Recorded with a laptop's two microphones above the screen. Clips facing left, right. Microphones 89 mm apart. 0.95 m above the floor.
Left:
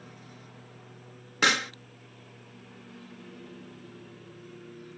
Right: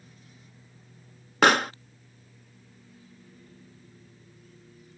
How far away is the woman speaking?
I don't hear a woman speaking.